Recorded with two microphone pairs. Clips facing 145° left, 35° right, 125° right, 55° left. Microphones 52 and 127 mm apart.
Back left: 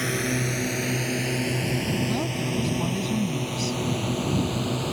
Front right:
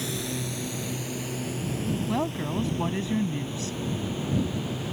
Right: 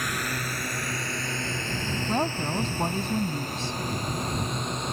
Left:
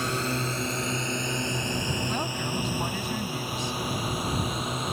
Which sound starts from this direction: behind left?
A drone, at 0.0 s.